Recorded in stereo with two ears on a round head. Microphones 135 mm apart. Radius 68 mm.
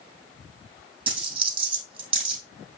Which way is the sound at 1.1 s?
35° right (ahead or behind).